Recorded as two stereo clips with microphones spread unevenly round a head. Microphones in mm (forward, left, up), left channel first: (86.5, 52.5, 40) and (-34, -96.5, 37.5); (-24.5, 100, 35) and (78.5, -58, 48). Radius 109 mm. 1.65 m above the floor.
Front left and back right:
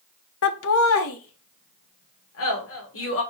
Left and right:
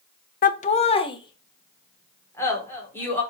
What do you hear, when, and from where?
0.4 s laughter: 80° left, 0.6 m; by 3.2 s 45° left, 2.5 m